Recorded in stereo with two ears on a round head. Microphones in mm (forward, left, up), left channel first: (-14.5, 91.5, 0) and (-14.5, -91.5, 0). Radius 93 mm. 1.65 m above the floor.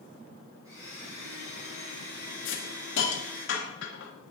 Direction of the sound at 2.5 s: 65° left (ahead or behind).